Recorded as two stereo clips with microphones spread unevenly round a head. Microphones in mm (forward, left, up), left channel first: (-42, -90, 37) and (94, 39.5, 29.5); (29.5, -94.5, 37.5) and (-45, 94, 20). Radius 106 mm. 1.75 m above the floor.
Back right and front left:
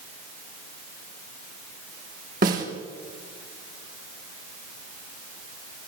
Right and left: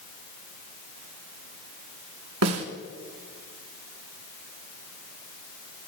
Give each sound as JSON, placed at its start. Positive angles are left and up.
{"t": 2.4, "sound": "a snare drum", "azimuth_deg": 95, "distance_m": 3.0}